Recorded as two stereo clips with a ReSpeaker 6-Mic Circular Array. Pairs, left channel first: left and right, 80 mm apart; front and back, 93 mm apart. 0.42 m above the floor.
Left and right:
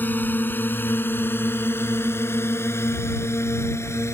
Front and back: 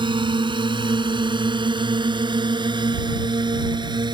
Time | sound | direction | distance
0.0 | a drone | 155° left | ?